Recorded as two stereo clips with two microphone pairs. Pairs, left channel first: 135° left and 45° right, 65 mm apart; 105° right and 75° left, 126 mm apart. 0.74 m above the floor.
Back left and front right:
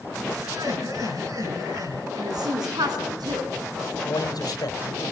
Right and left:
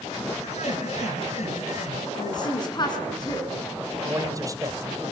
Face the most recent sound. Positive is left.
turn(degrees=135)